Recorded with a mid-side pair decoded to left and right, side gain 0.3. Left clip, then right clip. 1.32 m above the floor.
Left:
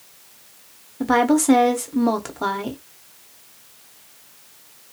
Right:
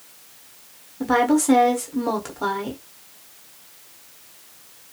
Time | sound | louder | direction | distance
1.0 | a woman speaking | left 1 dB | 45° left | 0.9 m